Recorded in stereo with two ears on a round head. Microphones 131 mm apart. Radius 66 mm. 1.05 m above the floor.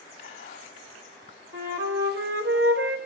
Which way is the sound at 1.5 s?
75° right (ahead or behind).